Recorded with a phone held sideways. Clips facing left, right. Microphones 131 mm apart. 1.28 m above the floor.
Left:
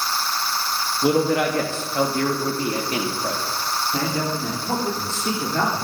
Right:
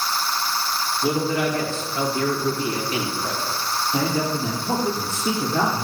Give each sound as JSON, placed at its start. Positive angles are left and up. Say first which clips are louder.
{"t": 1.0, "sound": "a man speaking", "louder": "left 4 dB", "side_deg": 70, "distance_m": 2.0}
{"t": 3.9, "sound": "a man speaking", "louder": "right 3 dB", "side_deg": -5, "distance_m": 3.0}